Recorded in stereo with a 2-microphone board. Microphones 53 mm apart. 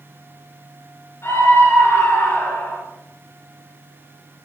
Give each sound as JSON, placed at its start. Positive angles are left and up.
{"t": 1.2, "sound": "a scream", "side_deg": 55, "distance_m": 4.0}